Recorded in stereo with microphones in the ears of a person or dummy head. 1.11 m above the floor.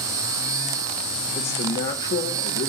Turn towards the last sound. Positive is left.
turn(degrees=70)  # may be behind; listen again after turning